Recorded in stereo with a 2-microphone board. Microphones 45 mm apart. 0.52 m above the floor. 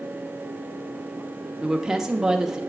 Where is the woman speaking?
10° right (ahead or behind), 0.8 m.